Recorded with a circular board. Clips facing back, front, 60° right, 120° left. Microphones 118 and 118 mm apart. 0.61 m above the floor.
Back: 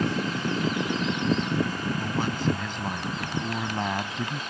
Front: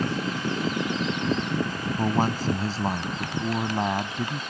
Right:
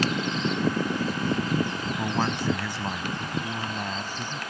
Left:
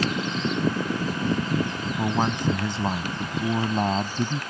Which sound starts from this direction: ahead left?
A man speaking, at 2.0 s.